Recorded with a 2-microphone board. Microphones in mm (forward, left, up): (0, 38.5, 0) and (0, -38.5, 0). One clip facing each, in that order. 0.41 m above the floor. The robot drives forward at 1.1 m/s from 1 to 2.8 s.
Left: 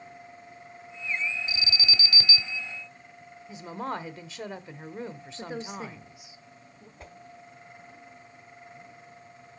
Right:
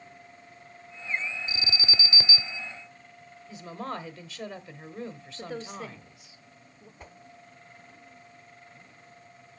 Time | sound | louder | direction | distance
1.5 | an alarm | left 1 dB | 40° right (ahead or behind) | 0.6 m
3.5 | a woman speaking | left 2 dB | 20° left (ahead or behind) | 1.0 m
5.4 | a woman speaking | left 1 dB | 15° left (ahead or behind) | 0.8 m
7.0 | a whoosh | left 1 dB | centre (ahead or behind) | 0.9 m